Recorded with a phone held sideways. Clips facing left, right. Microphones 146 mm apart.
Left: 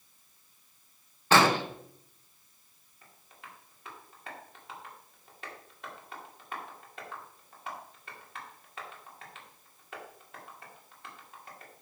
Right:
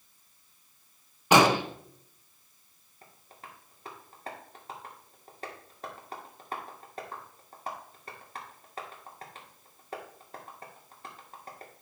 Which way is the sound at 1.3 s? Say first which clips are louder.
Right 2 dB; 15° right (ahead or behind).